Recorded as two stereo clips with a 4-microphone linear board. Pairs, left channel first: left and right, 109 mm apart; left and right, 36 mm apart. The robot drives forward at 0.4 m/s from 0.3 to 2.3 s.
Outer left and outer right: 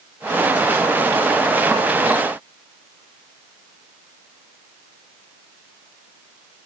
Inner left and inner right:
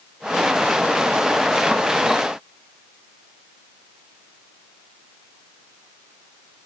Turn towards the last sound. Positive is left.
No sound to turn to.